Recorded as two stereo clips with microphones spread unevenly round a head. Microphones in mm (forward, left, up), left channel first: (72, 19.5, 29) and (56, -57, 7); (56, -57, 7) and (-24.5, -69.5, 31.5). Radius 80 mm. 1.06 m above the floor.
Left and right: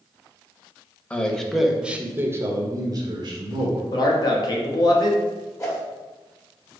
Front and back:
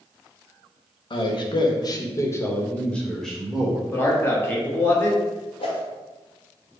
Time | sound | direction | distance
1.1 | a man speaking | straight ahead | 1.1 m
3.9 | a man speaking | 45° left | 1.1 m
5.6 | a whoosh | 30° left | 1.5 m